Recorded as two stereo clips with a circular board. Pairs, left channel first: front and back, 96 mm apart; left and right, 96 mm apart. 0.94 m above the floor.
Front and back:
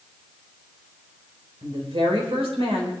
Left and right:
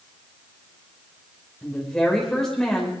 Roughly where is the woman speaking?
Behind.